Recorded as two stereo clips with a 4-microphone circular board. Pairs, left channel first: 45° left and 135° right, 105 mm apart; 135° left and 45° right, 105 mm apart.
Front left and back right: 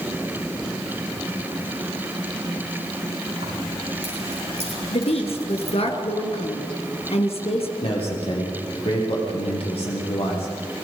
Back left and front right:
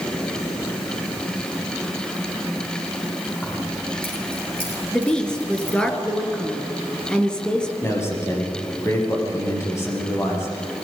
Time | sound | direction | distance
3.4 | keys jangling | 150° right | 8.5 m
4.9 | a woman speaking | 55° left | 3 m
7.8 | a man speaking | 70° left | 7 m